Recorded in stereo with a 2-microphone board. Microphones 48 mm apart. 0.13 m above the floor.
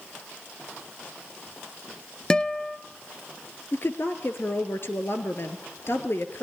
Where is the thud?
No thud in this recording.